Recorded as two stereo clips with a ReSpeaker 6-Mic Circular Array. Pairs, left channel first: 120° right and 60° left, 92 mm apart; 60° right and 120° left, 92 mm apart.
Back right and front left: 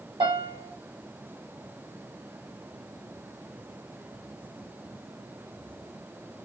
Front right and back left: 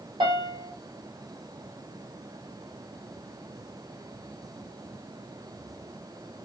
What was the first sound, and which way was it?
A piano, 90° left.